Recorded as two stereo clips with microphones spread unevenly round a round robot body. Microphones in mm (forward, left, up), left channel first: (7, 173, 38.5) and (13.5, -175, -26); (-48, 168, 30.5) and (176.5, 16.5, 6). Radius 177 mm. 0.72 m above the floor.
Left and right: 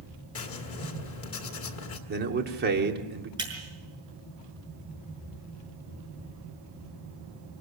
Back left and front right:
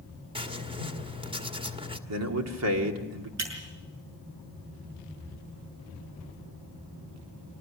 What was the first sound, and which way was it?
Writing, 35° left.